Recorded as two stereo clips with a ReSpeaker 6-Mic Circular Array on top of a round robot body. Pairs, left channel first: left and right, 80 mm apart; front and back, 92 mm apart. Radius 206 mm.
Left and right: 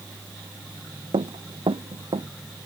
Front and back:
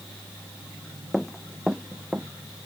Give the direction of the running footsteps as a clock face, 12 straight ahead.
3 o'clock.